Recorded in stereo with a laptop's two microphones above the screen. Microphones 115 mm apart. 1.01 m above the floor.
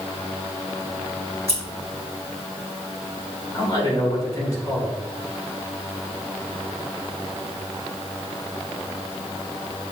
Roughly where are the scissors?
Left.